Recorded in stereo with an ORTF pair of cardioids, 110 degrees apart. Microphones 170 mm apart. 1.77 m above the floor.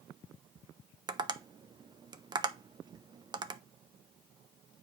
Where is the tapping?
25° right, 0.6 m.